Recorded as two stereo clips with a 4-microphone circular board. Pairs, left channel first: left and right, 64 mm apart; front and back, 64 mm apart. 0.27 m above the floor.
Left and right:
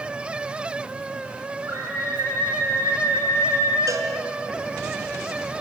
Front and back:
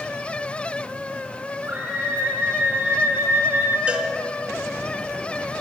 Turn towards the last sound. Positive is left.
turn(degrees=-110)